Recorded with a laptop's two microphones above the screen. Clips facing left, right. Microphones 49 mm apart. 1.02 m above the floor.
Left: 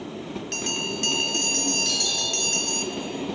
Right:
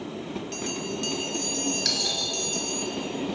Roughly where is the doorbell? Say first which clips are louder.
Left 2 dB; right.